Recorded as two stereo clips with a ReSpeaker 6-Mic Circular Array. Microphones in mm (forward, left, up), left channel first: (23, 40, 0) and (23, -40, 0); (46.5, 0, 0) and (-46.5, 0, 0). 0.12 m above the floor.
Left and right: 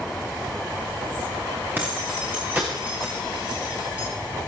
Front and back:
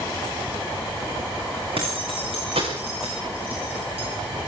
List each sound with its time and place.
1.8 s keys jangling: 155° right, 7.5 m; by 4.1 s 160° right, 10.5 m